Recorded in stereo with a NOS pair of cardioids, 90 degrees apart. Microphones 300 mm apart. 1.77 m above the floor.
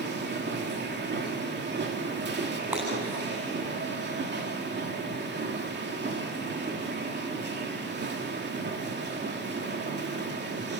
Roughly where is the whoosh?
No whoosh in this recording.